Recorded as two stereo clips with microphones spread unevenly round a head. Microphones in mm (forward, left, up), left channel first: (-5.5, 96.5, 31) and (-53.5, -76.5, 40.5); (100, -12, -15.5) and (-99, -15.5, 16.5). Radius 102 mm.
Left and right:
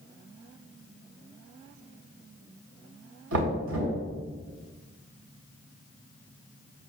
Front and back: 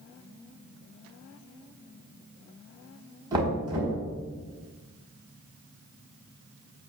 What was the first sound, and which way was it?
Knocking, 110° right.